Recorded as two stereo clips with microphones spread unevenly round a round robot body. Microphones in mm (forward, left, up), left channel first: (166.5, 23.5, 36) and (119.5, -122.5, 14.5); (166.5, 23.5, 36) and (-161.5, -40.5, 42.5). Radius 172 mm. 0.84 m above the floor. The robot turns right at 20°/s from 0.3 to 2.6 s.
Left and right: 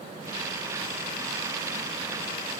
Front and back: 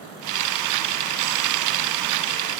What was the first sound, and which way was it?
Only background noise.